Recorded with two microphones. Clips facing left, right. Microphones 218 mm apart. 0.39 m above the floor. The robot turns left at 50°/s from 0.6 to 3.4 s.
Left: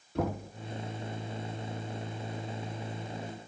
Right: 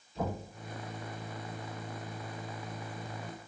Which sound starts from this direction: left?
Knocking, at 0.1 s.